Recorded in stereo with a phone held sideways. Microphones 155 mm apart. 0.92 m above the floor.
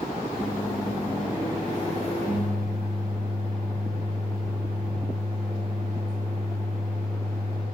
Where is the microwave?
45° left (ahead or behind), 1.7 m.